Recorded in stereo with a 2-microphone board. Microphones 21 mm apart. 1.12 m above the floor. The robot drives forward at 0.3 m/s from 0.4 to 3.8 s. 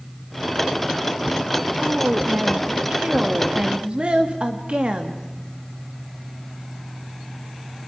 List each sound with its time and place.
1.8 s a woman speaking: 65° right (ahead or behind), 2 m; by 5.2 s 55° right (ahead or behind), 2.5 m